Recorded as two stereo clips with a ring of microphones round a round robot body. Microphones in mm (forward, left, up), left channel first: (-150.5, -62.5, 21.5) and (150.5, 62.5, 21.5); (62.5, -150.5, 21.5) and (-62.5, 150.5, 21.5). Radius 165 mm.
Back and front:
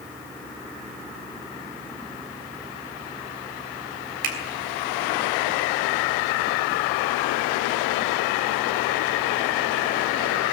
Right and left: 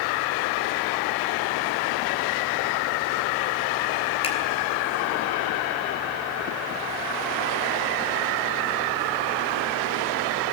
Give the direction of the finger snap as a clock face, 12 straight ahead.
12 o'clock.